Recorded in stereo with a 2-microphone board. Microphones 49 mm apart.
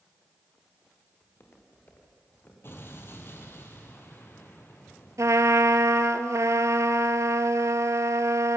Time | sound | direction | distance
1.2 | footsteps | 45° left (ahead or behind) | 5 m
2.6 | an explosion | 50° left (ahead or behind) | 2.5 m
5.2 | a trumpet | 80° right | 0.9 m